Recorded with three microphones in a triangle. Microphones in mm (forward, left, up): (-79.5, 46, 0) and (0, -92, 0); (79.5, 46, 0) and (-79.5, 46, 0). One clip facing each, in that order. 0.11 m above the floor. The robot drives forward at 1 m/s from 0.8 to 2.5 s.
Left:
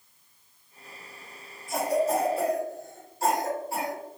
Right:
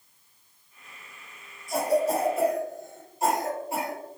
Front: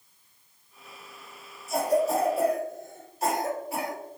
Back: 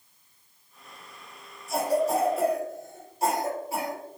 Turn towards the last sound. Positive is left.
turn(degrees=-125)